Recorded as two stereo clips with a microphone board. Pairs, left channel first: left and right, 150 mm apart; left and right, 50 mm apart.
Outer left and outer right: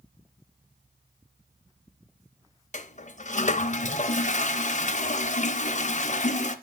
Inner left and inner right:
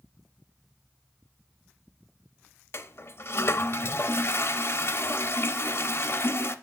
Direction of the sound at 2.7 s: 50° left (ahead or behind).